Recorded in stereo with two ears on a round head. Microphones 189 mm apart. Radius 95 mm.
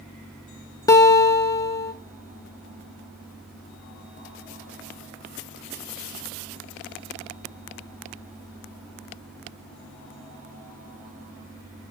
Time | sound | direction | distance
0.9 | a guitar | 15° left (ahead or behind) | 0.9 m